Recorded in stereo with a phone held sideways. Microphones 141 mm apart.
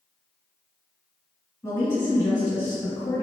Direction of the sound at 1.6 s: 25° left (ahead or behind).